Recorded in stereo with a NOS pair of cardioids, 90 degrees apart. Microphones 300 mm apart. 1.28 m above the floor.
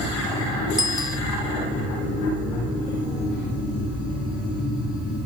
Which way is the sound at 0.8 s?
15° left.